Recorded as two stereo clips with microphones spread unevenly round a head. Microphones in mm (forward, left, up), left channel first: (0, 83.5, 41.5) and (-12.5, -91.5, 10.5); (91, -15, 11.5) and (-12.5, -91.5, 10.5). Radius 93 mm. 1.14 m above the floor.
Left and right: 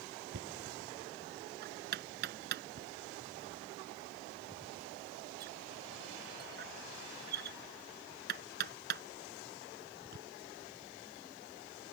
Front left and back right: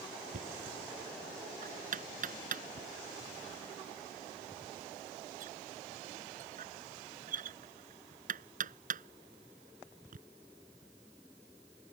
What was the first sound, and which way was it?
Knocking, 130° right.